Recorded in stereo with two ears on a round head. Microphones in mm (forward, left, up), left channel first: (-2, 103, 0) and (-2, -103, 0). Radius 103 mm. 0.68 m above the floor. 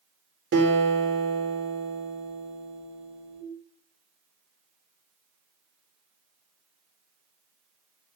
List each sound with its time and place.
0.5 s a guitar: 55° right (ahead or behind), 2.5 m